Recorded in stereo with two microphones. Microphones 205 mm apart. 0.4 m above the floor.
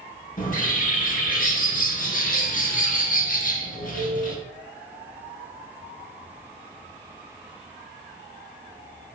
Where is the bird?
40° left (ahead or behind), 0.6 m.